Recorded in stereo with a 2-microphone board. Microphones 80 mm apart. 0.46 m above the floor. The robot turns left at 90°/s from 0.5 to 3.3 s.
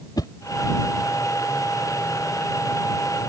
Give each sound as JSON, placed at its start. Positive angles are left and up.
{"t": 0.2, "sound": "a whoosh", "side_deg": 55}